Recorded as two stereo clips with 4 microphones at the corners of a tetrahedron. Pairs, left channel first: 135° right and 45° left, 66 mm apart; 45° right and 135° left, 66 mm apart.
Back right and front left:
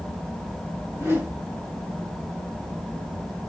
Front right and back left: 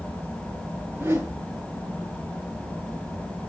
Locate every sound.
0.9 s a whoosh: 90° left, 3 m